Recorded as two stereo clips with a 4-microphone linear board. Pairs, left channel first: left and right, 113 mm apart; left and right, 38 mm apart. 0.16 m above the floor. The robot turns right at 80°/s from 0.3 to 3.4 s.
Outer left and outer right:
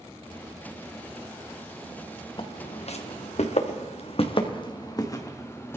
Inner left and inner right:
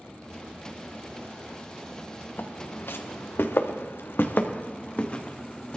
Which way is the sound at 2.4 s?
45° left (ahead or behind).